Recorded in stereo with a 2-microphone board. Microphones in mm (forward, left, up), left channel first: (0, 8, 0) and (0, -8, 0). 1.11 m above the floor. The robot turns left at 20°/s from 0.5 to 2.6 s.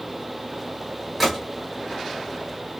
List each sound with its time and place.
1.2 s a gunshot: 10° right (ahead or behind), 1.1 m; by 1.4 s 15° right (ahead or behind), 1.1 m